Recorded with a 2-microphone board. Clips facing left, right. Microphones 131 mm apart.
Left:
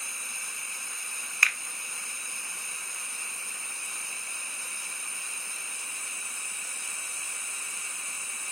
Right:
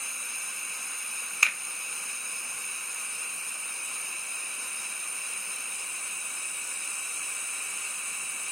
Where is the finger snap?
25° right (ahead or behind), 0.6 m.